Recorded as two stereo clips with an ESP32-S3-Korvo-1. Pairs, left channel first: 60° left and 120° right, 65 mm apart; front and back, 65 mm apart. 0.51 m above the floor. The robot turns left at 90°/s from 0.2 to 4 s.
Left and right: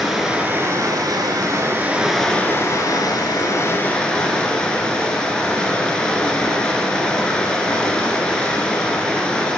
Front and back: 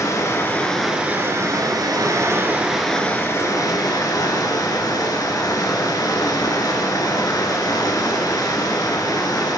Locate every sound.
0.0 s running water: 35° right, 1.4 m; by 9.6 s 15° right, 1.4 m